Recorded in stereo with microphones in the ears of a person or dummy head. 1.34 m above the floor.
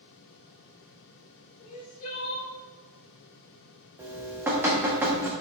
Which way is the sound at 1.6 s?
35° left (ahead or behind).